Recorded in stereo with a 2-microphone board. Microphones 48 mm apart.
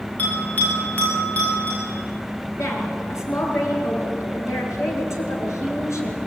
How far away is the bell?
About 8.5 m.